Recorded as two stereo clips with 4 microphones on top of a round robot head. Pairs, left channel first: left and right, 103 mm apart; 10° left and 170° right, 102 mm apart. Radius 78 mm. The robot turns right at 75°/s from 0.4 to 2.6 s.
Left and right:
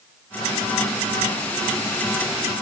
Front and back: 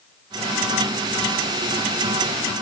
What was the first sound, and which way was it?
Only background noise.